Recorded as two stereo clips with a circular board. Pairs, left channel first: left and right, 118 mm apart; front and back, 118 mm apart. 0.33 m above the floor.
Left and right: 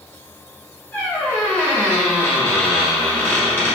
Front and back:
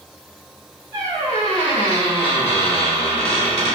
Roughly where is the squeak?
Ahead.